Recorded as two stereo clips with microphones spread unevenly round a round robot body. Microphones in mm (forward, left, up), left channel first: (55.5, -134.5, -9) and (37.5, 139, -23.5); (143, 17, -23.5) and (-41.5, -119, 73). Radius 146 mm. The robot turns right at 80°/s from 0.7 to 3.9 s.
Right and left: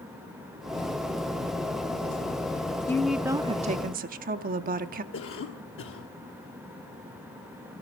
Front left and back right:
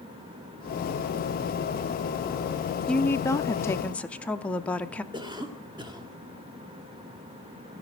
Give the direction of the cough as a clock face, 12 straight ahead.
2 o'clock.